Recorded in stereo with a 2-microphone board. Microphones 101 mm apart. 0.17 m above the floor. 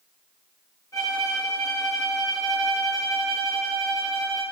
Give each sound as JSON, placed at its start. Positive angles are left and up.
{"t": 0.9, "sound": "a violin", "side_deg": 35, "distance_m": 1.8}